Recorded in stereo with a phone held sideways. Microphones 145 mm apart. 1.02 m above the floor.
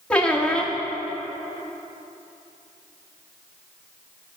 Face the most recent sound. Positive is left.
turn(degrees=5)  # may be behind; listen again after turning